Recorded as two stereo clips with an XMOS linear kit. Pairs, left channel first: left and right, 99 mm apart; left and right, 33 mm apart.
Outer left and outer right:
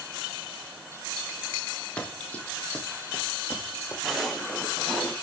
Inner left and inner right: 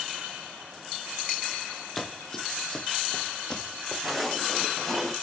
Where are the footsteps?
Centre (ahead or behind), 6 m; by 5.1 s 10° left (ahead or behind), 5 m.